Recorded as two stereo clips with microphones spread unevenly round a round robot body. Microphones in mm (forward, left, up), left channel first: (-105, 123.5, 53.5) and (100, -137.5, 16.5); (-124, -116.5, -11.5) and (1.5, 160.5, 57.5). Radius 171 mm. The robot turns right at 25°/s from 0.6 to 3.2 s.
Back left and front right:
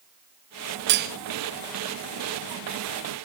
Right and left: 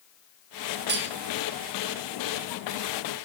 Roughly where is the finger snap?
No finger snap in this recording.